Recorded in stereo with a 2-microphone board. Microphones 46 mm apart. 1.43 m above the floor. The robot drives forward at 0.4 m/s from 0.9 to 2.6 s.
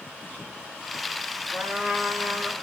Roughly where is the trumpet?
Right.